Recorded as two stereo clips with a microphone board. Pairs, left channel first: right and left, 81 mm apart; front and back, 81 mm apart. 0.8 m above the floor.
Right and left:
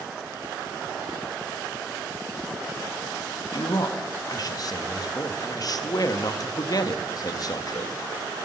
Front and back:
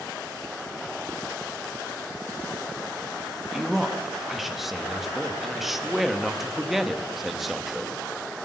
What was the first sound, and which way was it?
A man speaking, 95° right.